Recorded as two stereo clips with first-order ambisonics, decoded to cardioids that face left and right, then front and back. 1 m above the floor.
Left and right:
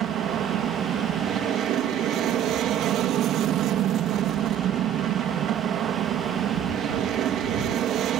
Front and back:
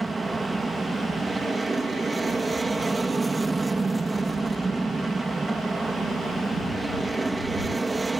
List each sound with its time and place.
0.0 s an aircraft: 105° right